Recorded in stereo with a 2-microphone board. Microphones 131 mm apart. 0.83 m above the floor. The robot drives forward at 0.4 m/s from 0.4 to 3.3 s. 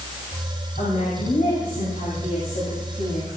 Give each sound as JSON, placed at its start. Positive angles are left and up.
{"t": 0.8, "sound": "a woman speaking", "side_deg": 80, "distance_m": 5.5}